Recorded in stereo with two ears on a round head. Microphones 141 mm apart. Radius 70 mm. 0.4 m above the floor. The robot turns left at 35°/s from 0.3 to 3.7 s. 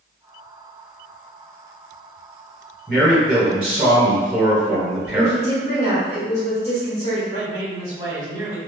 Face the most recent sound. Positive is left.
turn(degrees=-25)  # may be behind; listen again after turning